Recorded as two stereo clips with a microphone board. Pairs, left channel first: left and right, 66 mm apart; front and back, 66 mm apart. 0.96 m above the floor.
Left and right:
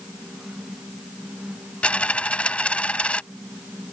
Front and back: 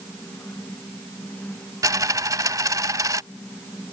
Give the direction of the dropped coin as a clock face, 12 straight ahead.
7 o'clock.